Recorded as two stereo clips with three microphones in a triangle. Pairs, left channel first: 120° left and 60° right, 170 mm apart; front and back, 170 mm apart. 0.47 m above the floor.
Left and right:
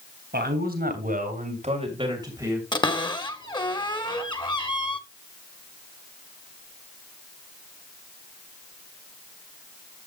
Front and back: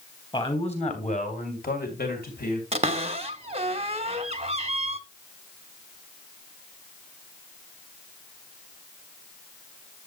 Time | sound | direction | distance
0.3 | a man speaking | 60° right | 3.5 m
2.7 | a cupboard door | 165° left | 1.0 m